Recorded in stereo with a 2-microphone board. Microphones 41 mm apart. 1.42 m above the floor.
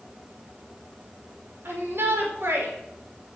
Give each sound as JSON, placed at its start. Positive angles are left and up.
{"t": 1.6, "sound": "a shout", "side_deg": -65, "distance_m": 5.0}